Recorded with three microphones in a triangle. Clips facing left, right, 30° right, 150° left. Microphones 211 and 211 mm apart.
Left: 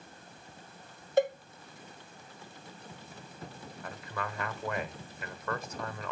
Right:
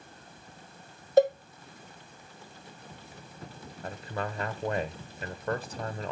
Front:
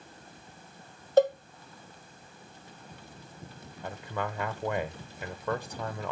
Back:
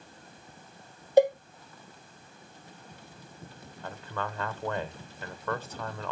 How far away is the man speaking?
About 1.2 m.